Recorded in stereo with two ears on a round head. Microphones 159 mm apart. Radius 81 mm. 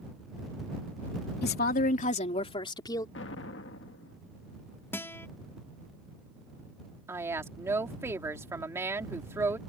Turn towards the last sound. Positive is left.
turn(degrees=-15)  # may be behind; listen again after turning